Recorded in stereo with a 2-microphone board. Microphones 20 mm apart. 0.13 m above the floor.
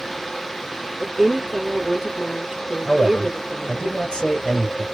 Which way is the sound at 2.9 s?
30° left (ahead or behind).